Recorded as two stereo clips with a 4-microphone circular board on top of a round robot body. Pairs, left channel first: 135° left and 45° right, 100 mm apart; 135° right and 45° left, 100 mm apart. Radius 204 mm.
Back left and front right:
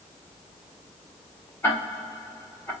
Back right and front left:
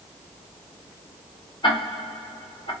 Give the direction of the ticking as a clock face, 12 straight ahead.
6 o'clock.